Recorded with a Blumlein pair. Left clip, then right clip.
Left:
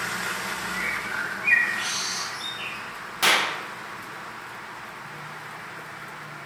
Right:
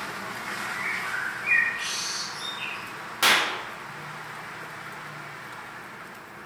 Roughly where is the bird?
Ahead.